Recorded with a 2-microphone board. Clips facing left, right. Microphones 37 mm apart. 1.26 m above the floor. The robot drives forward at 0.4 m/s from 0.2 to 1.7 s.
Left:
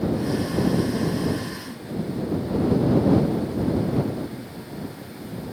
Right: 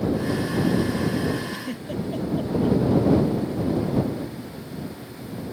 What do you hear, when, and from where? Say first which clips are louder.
1.5 s a giggle: right 2 dB; 85° right; by 2.8 s 80° right